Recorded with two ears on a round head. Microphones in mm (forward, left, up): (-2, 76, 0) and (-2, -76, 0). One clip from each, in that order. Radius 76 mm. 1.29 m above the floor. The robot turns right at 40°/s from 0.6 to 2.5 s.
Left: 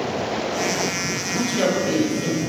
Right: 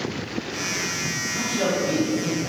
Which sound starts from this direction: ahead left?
A man speaking, at 1.3 s.